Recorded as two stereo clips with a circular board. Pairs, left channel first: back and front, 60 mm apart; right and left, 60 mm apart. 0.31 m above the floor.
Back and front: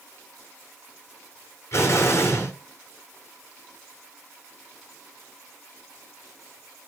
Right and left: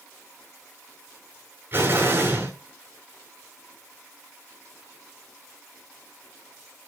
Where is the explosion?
140° left, 4.5 m.